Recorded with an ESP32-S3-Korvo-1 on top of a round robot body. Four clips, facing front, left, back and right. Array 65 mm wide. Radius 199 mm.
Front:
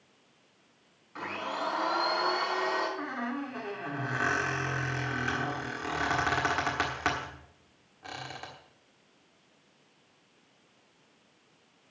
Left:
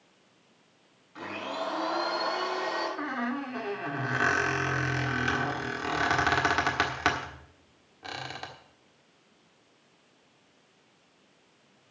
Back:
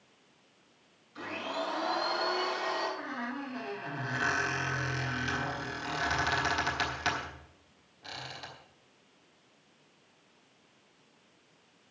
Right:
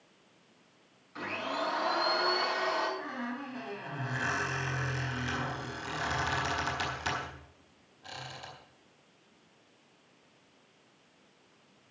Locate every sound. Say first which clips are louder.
1.1 s a blender: even, front 2 dB; 10° right, 6 m
3.0 s a squeak: left 6 dB, front 3 dB; 65° left, 1.5 m